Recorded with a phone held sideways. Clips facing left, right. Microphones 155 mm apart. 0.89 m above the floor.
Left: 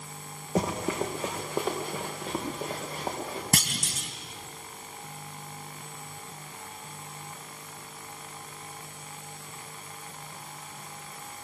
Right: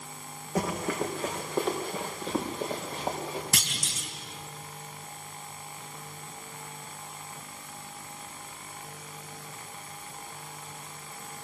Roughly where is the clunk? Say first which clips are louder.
Left 5 dB; left.